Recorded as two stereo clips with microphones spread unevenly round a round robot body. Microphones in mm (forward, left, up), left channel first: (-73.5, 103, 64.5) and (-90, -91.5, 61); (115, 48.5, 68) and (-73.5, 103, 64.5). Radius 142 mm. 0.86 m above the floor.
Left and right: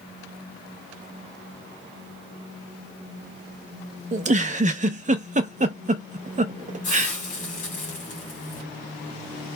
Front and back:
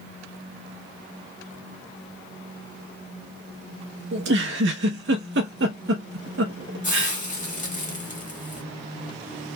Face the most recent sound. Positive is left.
turn(degrees=35)